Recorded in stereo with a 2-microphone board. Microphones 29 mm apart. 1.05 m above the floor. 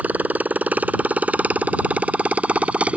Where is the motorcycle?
70° right (ahead or behind); by 3.0 s 45° right (ahead or behind).